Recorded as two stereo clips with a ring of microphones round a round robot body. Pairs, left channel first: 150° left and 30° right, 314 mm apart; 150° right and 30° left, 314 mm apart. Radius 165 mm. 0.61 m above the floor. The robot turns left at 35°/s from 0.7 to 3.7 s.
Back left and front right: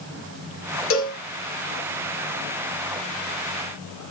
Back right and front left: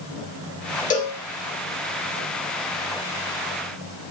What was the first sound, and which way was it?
A cowbell, 155° left.